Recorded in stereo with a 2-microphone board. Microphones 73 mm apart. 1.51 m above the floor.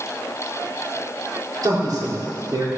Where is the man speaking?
60° right (ahead or behind), 4.5 m.